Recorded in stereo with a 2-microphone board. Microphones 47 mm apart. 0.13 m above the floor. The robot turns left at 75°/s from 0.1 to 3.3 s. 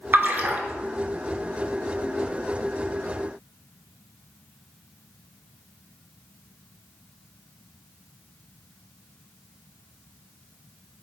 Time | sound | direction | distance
0.1 | a splash | 50° right (ahead or behind) | 0.5 m